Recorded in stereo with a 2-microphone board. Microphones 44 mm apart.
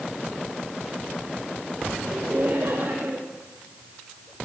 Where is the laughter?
45° right (ahead or behind), 3.5 m.